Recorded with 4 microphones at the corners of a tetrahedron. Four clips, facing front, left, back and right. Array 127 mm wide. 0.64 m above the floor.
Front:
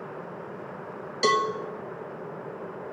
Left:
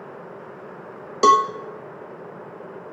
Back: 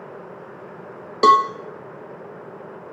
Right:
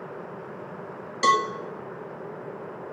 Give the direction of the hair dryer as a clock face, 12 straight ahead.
No hair dryer in this recording.